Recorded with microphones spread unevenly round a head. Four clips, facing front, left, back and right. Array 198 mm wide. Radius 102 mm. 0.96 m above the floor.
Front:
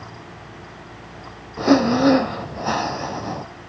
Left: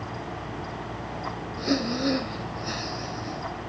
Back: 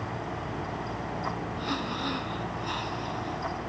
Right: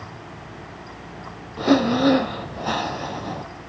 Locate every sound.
1.6 s breathing: 25° right